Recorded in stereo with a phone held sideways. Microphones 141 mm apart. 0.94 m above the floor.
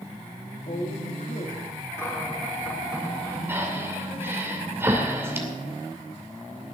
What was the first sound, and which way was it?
A woman speaking, 60° left (ahead or behind).